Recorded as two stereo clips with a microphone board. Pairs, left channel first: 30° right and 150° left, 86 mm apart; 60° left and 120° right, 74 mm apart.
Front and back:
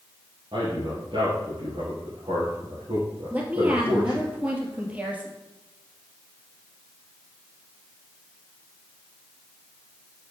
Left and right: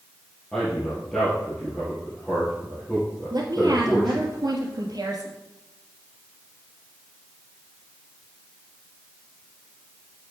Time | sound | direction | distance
0.5 | a man speaking | 140° left | 3.5 m
3.3 | a woman speaking | 140° right | 2.5 m